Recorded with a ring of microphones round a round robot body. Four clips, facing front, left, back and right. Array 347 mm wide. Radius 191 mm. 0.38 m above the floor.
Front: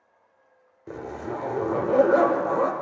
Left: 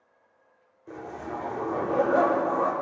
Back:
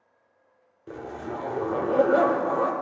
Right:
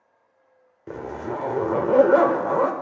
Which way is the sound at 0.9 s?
75° right.